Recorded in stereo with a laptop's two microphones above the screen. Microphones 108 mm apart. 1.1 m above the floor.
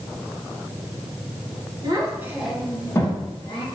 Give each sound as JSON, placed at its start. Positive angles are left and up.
{"t": 1.8, "sound": "a child speaking", "side_deg": -40, "distance_m": 0.7}